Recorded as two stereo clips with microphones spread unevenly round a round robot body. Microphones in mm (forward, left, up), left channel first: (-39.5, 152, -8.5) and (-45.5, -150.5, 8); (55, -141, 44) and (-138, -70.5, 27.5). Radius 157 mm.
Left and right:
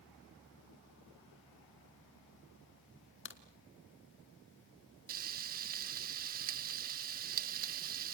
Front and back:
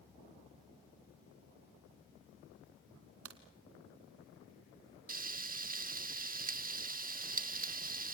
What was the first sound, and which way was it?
A crack, 140° left.